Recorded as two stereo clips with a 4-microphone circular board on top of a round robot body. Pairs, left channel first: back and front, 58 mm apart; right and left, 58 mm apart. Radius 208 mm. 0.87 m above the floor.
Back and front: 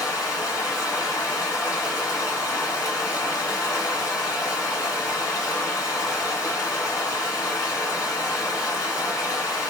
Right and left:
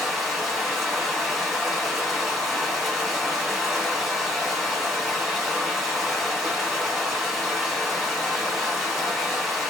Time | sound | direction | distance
0.0 | running water | 170° left | 2 m